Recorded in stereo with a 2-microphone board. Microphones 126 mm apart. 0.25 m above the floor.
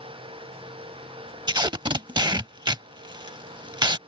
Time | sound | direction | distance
1.5 | tape being pulled | 35° right (ahead or behind) | ?